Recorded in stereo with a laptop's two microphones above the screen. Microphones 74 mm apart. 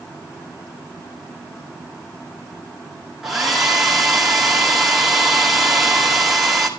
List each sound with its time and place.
3.2 s a hair dryer: 5° right (ahead or behind), 2.5 m